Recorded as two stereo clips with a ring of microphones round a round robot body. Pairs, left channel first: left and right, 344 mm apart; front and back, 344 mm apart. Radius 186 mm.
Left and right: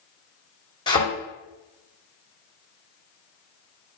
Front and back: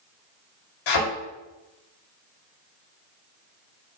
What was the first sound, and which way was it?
A thud, 15° left.